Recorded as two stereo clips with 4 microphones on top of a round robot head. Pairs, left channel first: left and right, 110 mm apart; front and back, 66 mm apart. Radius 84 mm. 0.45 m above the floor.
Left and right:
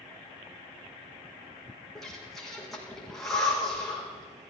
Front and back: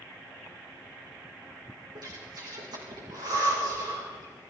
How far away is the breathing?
About 6 m.